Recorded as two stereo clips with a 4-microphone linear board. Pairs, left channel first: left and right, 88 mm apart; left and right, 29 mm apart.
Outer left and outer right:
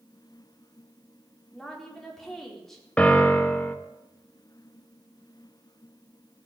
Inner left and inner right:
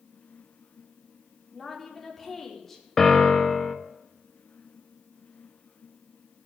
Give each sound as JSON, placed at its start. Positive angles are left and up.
{"t": 1.5, "sound": "a woman speaking", "side_deg": 5, "distance_m": 4.0}
{"t": 3.0, "sound": "a piano", "side_deg": 15, "distance_m": 1.5}